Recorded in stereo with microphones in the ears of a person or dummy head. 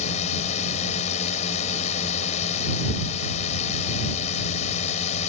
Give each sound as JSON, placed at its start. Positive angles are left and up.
{"t": 0.0, "sound": "a drone", "side_deg": 40}